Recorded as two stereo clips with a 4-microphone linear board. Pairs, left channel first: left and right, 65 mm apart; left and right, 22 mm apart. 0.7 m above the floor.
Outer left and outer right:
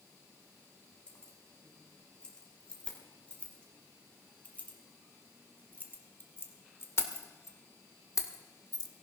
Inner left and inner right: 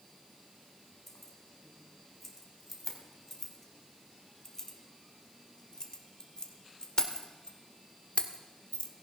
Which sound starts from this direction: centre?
Keys jangling, at 1.1 s.